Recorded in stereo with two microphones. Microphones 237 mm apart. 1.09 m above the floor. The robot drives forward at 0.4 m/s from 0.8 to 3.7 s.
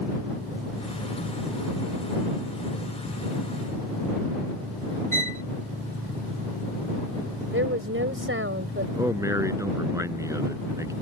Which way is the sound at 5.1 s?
65° left (ahead or behind).